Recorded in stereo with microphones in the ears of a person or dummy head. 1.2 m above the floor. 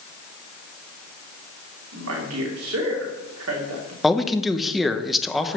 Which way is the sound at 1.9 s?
80° right.